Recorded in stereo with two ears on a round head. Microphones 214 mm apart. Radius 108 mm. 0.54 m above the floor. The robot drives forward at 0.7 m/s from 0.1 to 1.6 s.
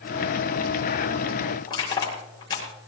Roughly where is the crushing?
Left.